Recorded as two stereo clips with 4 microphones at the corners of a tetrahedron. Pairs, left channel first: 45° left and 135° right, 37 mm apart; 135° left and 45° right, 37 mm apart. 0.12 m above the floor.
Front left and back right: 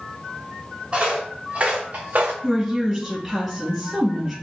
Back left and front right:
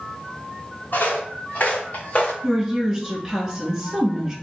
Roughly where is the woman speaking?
Right.